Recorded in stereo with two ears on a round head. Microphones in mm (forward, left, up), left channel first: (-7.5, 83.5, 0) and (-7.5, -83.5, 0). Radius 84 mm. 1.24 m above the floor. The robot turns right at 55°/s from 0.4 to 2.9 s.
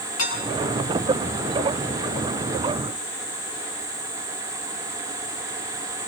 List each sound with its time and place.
0.2 s dishes clattering: 80° left, 9.5 m